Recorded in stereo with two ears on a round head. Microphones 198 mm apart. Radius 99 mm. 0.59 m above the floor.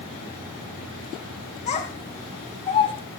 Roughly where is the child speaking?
Left.